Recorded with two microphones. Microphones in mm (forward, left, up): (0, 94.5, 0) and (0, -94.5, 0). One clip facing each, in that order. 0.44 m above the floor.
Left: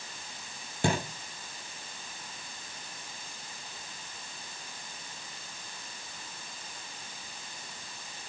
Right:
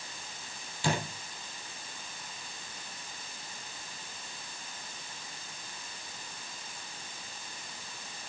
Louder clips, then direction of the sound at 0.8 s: Left 3 dB; 55° left (ahead or behind).